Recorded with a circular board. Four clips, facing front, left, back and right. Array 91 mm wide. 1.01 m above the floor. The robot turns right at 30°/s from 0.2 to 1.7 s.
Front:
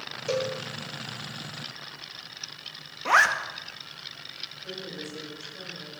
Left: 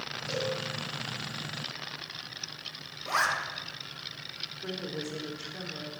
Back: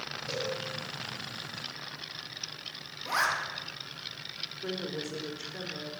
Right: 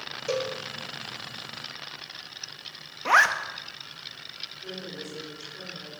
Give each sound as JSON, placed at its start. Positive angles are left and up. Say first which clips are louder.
{"t": 0.3, "sound": "a cowbell", "louder": "right 4 dB, front 7 dB", "azimuth_deg": -55, "distance_m": 2.0}
{"t": 3.0, "sound": "a zipper", "louder": "right 8 dB, front 8 dB", "azimuth_deg": -55, "distance_m": 1.1}
{"t": 4.6, "sound": "a woman speaking", "louder": "left 3 dB, back 3 dB", "azimuth_deg": 155, "distance_m": 4.0}